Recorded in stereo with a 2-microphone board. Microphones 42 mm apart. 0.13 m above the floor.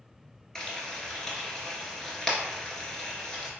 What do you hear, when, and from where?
0.6 s frying: 10° left (ahead or behind), 1.0 m